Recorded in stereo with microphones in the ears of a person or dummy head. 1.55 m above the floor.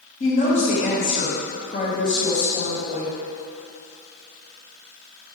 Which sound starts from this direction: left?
A woman speaking, at 0.2 s.